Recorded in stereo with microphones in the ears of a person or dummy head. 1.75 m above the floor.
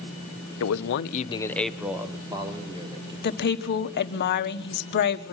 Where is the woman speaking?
50° left (ahead or behind), 1.4 m.